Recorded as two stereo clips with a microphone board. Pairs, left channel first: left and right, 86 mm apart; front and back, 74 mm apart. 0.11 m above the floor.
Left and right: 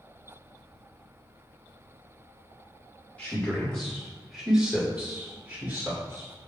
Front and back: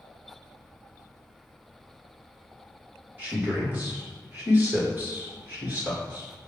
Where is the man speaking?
140° left, 1.6 m; by 6.3 s 125° right, 1.9 m.